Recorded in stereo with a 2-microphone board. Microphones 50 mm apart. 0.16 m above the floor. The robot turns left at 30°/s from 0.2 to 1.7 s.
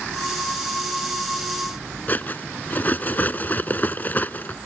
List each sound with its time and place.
2.1 s cutlery clinking: 40° left (ahead or behind)